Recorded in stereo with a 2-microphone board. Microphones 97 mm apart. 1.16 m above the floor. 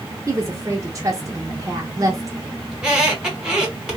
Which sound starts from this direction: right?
A woman speaking, at 0.3 s.